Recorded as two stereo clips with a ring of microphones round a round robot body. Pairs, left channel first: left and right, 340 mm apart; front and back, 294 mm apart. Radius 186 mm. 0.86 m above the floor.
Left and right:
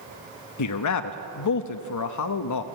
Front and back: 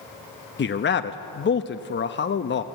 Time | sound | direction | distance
0.6 | a man speaking | 55° left | 1.0 m